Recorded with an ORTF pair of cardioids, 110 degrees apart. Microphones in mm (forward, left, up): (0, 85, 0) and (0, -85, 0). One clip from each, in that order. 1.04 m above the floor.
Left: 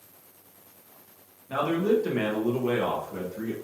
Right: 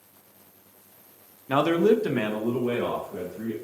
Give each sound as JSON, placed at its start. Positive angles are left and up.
{"t": 1.5, "sound": "a man speaking", "azimuth_deg": -60, "distance_m": 0.5}